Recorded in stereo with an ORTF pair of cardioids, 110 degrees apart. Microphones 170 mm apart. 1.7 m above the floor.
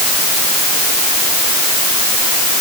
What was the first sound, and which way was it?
Only background noise.